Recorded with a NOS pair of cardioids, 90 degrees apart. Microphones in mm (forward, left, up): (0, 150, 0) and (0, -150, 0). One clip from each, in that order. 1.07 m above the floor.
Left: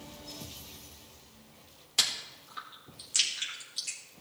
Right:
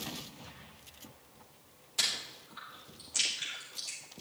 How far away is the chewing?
About 3.5 m.